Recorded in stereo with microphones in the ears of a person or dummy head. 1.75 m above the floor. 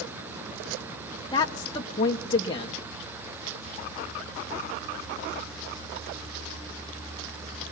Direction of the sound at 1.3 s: 30° left (ahead or behind).